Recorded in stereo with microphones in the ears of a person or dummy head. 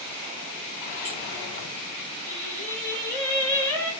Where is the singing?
15° left (ahead or behind), 1.2 m.